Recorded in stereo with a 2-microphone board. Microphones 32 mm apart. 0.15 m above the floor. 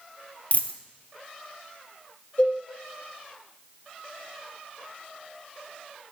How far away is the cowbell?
About 4 m.